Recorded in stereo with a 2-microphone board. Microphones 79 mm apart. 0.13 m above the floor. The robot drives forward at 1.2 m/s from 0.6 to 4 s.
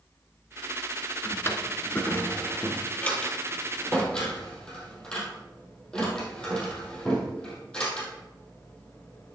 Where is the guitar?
I don't hear a guitar.